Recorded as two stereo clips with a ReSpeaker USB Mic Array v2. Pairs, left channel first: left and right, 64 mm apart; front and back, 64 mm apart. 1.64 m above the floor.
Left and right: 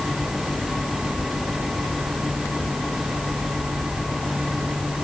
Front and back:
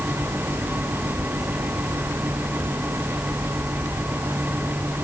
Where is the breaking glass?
I don't hear breaking glass.